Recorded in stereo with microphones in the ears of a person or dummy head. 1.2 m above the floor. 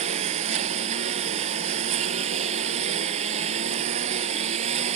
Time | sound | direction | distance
0.0 | a lawn mower | 40° right (ahead or behind) | ?